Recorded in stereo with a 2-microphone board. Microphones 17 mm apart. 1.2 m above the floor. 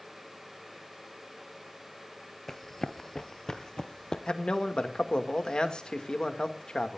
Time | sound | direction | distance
2.5 | running footsteps | 20° left (ahead or behind) | 1.2 m
4.3 | a man speaking | 60° left (ahead or behind) | 2 m